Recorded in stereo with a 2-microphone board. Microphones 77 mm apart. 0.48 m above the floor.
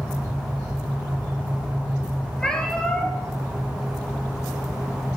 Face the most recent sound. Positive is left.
turn(degrees=10)  # may be behind; listen again after turning